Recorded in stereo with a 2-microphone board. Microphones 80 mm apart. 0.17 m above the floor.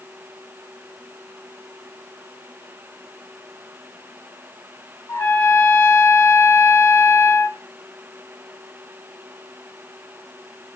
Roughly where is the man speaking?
I don't hear a man speaking.